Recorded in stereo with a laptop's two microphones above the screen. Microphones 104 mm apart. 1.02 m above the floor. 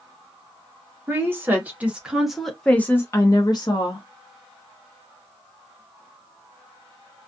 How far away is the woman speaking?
About 1.2 m.